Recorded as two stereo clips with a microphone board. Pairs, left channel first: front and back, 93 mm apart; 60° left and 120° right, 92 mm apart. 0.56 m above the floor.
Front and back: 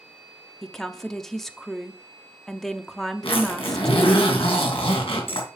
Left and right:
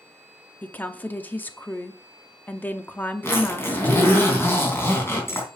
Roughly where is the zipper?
Ahead.